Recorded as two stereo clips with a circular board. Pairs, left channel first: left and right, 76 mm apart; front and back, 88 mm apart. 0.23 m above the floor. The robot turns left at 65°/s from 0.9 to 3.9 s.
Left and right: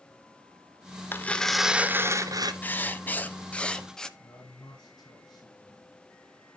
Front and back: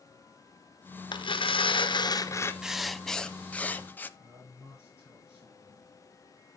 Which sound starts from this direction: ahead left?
Tearing paper, at 1.1 s.